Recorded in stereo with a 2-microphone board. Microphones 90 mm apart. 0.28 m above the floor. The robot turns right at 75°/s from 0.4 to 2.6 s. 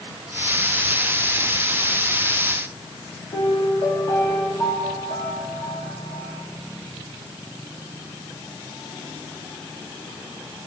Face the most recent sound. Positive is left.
turn(degrees=60)  # may be behind; listen again after turning